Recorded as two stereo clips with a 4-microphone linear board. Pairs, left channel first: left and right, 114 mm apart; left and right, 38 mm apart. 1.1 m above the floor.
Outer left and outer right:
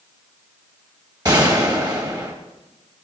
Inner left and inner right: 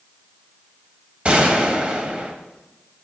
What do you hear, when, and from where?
1.2 s a gunshot: 35° right (ahead or behind), 2 m